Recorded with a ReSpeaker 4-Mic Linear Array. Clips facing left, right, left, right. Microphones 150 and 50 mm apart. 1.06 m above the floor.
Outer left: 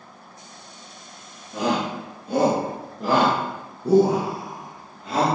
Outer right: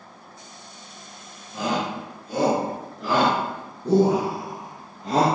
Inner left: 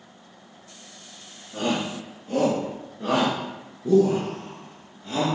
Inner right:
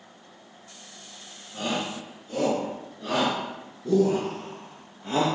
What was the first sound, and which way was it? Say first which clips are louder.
A shout: outer left 2 dB, inner left 3 dB; 65° left (ahead or behind).